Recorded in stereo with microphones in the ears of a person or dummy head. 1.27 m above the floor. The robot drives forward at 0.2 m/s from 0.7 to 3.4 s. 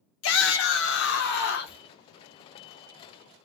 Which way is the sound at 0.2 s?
75° left (ahead or behind).